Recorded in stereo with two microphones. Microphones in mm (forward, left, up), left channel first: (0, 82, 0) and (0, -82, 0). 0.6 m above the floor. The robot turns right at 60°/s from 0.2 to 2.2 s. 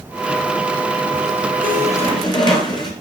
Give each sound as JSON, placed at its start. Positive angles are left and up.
{"t": 1.6, "sound": "a squeak", "azimuth_deg": 115, "distance_m": 1.6}